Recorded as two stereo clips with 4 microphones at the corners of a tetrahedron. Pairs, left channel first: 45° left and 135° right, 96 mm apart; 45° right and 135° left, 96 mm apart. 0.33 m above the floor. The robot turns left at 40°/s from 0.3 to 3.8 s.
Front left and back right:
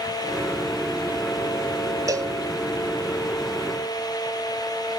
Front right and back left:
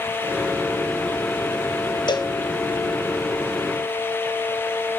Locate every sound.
2.1 s a cowbell: 80° right, 0.6 m; by 2.3 s 95° right, 0.6 m